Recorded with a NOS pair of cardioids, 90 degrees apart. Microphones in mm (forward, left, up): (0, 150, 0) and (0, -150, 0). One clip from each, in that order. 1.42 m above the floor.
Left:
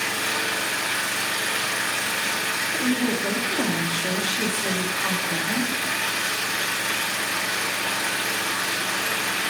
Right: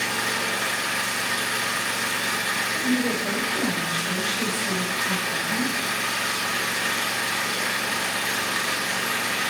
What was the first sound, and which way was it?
An engine running, 60° left.